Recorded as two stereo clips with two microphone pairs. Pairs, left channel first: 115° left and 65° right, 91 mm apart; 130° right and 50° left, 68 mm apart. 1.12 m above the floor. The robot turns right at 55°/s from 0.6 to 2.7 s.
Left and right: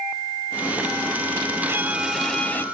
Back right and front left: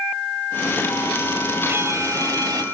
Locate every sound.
1.7 s a violin: 5° right; by 2.6 s 50° left